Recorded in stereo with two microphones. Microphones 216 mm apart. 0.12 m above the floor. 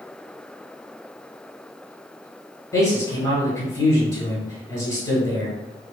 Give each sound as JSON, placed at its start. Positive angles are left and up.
{"t": 2.7, "sound": "a man speaking", "side_deg": 15, "distance_m": 1.6}